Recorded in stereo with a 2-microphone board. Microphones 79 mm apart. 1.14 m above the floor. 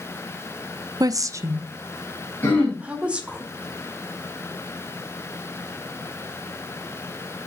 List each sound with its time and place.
1.0 s a woman speaking: 50° right (ahead or behind), 0.5 m; by 3.4 s 15° right (ahead or behind), 1.6 m
2.4 s throat clearing: 25° left (ahead or behind), 4 m